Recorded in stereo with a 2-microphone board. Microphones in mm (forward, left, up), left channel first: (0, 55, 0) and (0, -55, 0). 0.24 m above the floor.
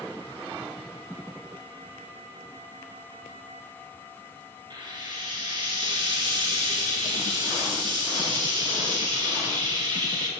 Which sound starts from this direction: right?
Frying, at 4.7 s.